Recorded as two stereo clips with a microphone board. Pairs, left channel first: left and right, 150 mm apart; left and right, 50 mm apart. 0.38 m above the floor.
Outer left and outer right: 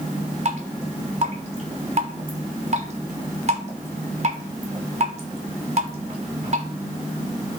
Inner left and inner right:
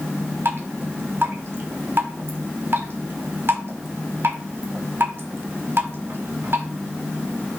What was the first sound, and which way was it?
Dripping, 50° right (ahead or behind).